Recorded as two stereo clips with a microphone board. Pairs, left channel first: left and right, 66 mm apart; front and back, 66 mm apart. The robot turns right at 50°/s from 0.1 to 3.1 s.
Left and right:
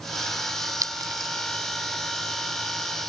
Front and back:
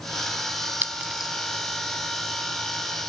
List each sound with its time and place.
0.8 s a clink: 120° right; by 1.3 s 95° right